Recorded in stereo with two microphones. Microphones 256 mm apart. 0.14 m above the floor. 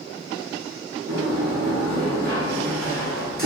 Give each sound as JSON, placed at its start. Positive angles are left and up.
{"t": 1.1, "sound": "a sliding door", "side_deg": -35, "distance_m": 1.8}